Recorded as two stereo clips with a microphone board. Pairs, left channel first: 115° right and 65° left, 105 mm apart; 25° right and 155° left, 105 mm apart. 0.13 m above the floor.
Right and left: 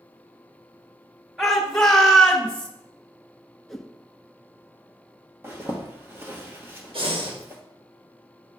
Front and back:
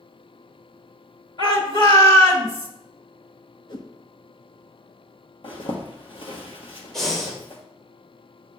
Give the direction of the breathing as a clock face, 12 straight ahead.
10 o'clock.